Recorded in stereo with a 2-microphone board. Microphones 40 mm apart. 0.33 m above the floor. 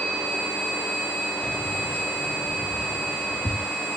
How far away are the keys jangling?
About 1.1 m.